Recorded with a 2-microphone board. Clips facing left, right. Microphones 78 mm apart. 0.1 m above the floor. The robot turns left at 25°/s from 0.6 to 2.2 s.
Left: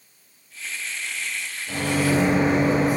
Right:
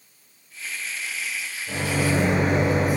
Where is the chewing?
No chewing in this recording.